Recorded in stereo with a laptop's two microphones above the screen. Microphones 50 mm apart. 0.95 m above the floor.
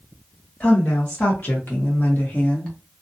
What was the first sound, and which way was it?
A woman speaking, 35° left (ahead or behind).